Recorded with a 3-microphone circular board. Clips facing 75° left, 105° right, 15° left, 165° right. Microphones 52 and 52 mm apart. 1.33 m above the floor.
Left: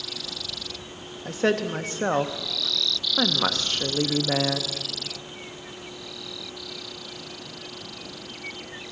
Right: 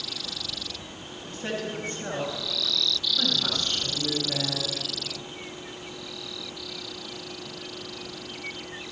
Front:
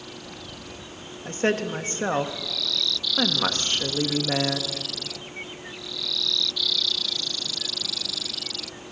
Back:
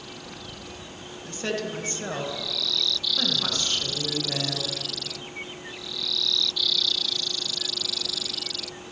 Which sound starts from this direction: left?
A woman speaking, at 1.2 s.